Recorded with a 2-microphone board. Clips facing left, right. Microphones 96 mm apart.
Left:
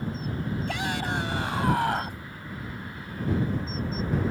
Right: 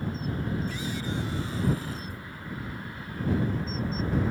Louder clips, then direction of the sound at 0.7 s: Left 3 dB; 75° left (ahead or behind).